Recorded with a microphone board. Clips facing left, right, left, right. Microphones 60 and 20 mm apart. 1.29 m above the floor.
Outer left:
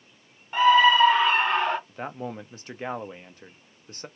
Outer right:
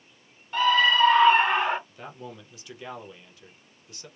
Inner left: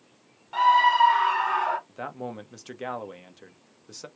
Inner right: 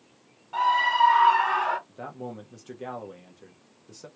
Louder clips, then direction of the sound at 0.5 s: Outer left 4 dB, inner left 3 dB; 20° left (ahead or behind).